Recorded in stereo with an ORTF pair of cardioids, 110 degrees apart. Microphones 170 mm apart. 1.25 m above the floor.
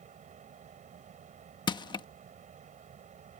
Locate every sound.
0.0 s a fan: 45° right
1.7 s crushing: 25° left